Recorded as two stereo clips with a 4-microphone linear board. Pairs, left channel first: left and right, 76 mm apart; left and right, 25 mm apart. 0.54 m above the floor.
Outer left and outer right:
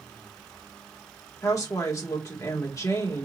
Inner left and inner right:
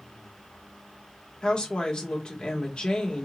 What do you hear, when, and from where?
1.4 s a woman speaking: 45° left (ahead or behind), 1.3 m